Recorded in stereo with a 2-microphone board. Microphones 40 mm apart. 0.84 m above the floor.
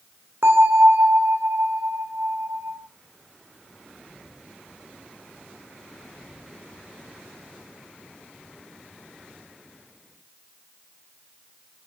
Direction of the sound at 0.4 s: 75° right (ahead or behind).